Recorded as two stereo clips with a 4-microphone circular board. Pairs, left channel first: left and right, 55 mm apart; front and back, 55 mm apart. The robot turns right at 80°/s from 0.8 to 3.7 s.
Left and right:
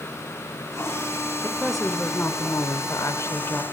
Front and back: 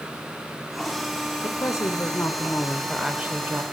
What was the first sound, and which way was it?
A woman speaking, 25° right.